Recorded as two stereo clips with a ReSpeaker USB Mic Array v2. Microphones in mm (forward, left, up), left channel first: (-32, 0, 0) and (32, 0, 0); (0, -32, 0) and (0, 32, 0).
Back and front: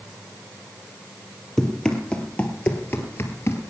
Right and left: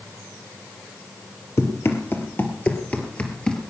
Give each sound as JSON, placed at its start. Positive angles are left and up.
{"t": 1.6, "sound": "running footsteps", "azimuth_deg": -105, "distance_m": 2.0}